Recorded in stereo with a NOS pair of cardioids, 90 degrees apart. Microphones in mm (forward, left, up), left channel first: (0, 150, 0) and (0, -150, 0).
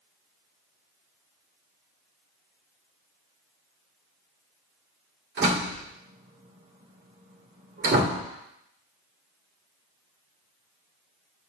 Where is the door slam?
40° right, 2.5 m.